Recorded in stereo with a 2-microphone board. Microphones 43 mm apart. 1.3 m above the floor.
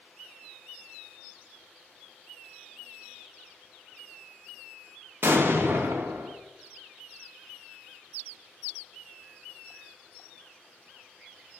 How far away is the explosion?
About 0.8 m.